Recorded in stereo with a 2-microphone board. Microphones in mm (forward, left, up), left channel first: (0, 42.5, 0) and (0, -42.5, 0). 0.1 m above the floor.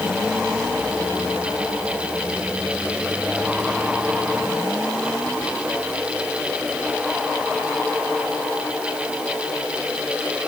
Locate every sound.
Only background noise.